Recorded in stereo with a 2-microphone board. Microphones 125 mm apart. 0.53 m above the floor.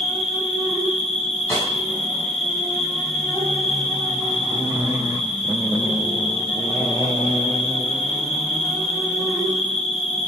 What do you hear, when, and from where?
0.0 s an insect: 55° left (ahead or behind), 7 m
1.5 s a snare drum: 25° left (ahead or behind), 5.5 m